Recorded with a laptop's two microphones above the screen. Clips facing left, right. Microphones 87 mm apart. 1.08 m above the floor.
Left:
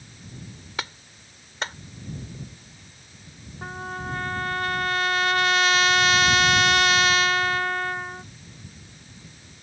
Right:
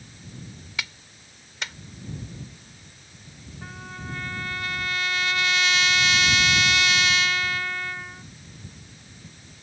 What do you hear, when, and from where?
0.8 s a clap: 40° left (ahead or behind)
3.6 s a trumpet: 40° left (ahead or behind)